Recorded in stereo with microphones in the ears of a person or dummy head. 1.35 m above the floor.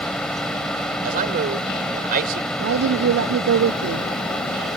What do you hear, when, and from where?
0.0 s a fan: centre (ahead or behind)
1.0 s a man speaking: 50° right (ahead or behind)
2.6 s a woman speaking: 80° right